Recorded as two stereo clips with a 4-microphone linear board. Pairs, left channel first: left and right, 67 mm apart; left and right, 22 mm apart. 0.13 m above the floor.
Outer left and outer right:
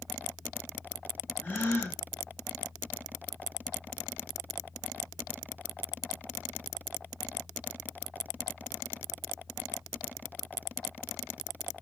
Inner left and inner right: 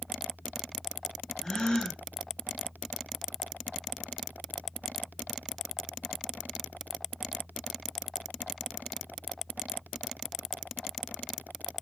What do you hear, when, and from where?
1.4 s a gasp: 25° left (ahead or behind), 2 m